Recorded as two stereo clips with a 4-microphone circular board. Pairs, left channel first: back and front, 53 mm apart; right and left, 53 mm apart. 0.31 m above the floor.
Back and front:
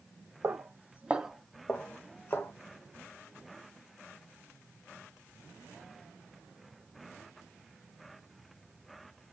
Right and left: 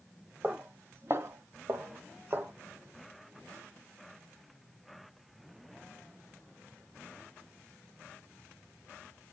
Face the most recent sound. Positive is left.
turn(degrees=140)